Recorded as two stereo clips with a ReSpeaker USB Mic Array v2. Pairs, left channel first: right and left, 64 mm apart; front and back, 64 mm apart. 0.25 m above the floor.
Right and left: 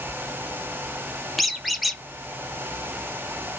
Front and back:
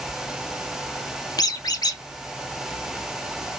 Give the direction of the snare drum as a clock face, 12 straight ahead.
I don't hear a snare drum.